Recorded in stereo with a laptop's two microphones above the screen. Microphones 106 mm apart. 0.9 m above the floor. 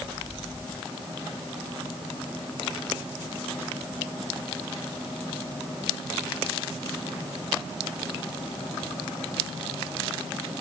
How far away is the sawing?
No sawing in this recording.